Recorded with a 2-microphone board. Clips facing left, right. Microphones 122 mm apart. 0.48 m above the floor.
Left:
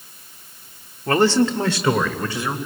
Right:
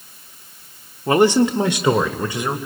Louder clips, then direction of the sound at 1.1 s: Right 2 dB; 15° right (ahead or behind).